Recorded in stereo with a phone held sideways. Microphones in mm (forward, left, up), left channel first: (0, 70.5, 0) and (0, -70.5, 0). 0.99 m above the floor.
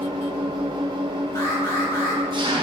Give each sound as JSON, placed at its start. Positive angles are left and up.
{"t": 0.0, "sound": "an engine running", "side_deg": -35, "distance_m": 0.9}
{"t": 1.4, "sound": "an alarm", "side_deg": 20, "distance_m": 1.9}